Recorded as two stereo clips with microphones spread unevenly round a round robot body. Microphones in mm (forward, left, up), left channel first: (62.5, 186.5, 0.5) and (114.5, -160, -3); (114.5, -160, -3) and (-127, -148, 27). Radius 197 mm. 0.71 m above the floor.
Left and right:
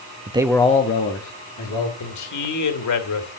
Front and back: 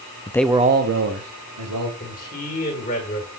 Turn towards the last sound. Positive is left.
turn(degrees=60)